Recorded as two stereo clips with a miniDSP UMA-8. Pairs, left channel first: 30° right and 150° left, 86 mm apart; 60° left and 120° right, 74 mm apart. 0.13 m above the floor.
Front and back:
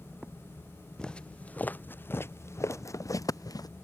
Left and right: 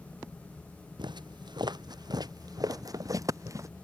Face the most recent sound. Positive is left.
turn(degrees=-75)